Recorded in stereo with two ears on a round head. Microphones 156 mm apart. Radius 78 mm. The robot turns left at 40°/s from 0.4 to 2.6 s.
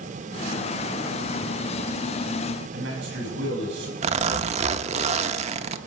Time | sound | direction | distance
2.7 | a man speaking | 75° right (ahead or behind) | 6.5 m
4.0 | a zipper | 40° right (ahead or behind) | 0.7 m